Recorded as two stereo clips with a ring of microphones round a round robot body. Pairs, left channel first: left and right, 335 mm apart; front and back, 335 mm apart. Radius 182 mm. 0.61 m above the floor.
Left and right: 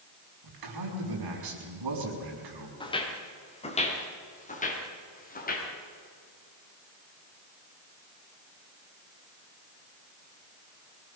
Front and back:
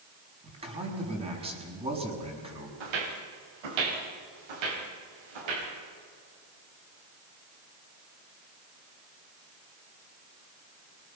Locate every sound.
0.4 s a man speaking: 105° right, 6 m
2.8 s footsteps: 165° left, 4.5 m; by 5.7 s 155° left, 6.5 m